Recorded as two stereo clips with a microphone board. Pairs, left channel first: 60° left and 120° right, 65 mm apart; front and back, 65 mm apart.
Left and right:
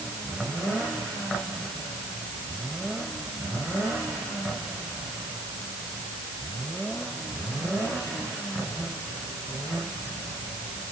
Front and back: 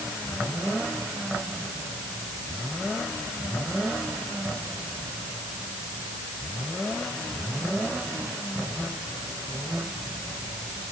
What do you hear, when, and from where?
Only background noise.